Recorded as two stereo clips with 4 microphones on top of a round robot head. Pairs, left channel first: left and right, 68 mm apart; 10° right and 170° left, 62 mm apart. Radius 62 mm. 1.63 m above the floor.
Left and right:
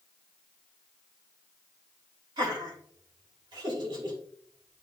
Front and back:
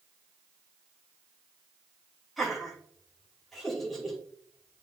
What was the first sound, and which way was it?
Laughter, 100° right.